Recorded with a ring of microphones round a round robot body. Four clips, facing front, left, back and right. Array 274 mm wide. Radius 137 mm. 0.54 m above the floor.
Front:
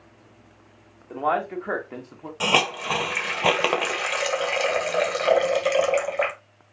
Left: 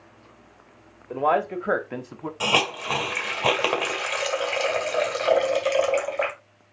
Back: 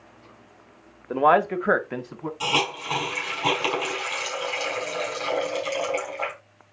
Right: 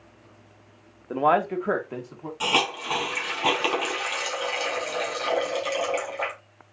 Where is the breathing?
No breathing in this recording.